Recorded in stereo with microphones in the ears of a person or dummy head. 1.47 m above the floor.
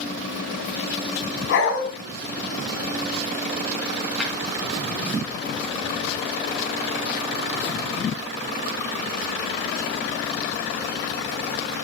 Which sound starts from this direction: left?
A dog barking, at 1.5 s.